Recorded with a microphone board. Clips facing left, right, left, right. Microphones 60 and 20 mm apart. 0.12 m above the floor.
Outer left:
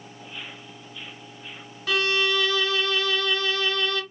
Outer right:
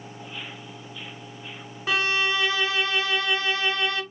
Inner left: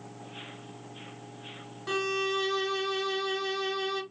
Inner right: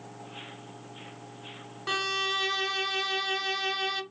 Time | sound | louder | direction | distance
1.9 | a violin | even, inner right 1 dB | 25° right (ahead or behind) | 0.6 m